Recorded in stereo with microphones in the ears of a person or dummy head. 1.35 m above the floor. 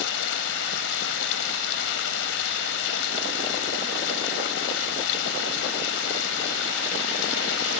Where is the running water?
65° left (ahead or behind).